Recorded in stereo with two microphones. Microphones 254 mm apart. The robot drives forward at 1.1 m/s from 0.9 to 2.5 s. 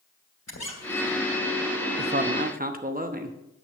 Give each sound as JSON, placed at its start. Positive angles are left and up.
{"t": 0.5, "sound": "a squeak", "side_deg": 85, "distance_m": 2.0}
{"t": 2.0, "sound": "a man speaking", "side_deg": -40, "distance_m": 0.8}